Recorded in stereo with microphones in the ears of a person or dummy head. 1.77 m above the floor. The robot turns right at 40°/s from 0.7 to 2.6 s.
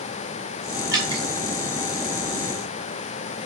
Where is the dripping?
5° right (ahead or behind), 3.5 m; by 1.2 s 20° right (ahead or behind), 3.5 m.